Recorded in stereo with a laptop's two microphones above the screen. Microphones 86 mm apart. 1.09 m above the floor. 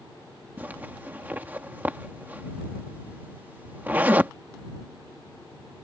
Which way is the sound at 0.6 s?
20° right (ahead or behind).